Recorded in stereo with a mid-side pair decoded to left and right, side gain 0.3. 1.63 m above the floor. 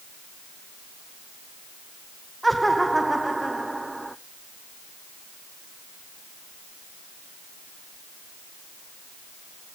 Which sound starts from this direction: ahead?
Laughter, at 2.4 s.